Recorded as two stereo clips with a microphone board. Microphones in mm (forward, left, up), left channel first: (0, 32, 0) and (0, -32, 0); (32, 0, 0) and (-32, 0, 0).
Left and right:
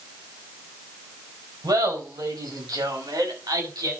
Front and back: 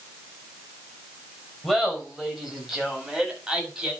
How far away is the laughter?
About 5.5 m.